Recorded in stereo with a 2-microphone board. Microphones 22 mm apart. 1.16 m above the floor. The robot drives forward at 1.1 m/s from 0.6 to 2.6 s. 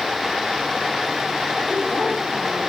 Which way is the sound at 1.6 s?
75° left (ahead or behind).